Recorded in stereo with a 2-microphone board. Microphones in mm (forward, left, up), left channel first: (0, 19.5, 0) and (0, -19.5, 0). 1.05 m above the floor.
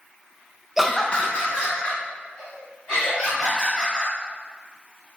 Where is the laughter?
10° right (ahead or behind), 0.5 m; by 4.1 s 40° left (ahead or behind), 4 m.